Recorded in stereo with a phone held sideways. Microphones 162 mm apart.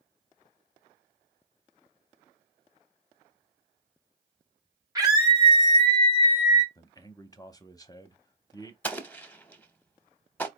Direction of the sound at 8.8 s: 10° left (ahead or behind).